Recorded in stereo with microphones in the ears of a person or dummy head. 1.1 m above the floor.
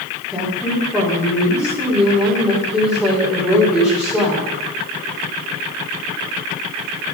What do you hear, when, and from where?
0.3 s a woman speaking: centre (ahead or behind), 4.5 m